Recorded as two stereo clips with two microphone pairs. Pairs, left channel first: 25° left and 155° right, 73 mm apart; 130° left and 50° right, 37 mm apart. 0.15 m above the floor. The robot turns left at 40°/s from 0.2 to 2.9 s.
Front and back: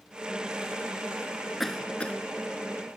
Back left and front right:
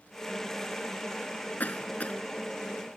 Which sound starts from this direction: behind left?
A cough, at 1.6 s.